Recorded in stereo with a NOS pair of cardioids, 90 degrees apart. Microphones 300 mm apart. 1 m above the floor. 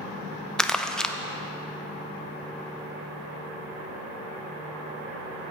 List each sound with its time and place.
0.6 s crumpling: straight ahead, 0.5 m